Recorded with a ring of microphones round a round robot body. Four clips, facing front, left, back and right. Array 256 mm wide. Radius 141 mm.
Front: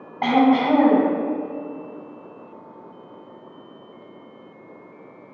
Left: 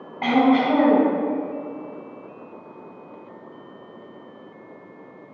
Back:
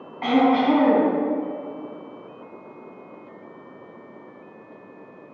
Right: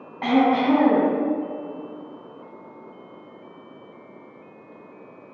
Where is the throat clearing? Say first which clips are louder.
Left 1 dB, front 1 dB; 20° left, 3.5 m.